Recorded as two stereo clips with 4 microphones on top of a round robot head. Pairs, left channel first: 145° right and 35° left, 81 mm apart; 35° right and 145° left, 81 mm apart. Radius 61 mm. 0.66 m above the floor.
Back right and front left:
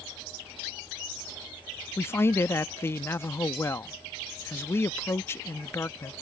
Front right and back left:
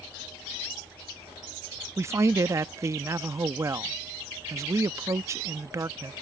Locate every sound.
2.0 s a man speaking: 175° left